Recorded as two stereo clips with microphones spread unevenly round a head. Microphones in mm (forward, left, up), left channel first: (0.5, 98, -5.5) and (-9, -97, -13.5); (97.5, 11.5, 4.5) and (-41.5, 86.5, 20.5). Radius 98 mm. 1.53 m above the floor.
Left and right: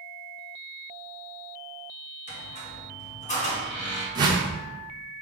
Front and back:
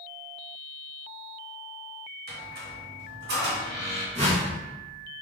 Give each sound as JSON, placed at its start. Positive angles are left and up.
{"t": 2.3, "sound": "a squeak", "azimuth_deg": 140, "distance_m": 1.3}
{"t": 4.2, "sound": "a whoosh", "azimuth_deg": -165, "distance_m": 0.8}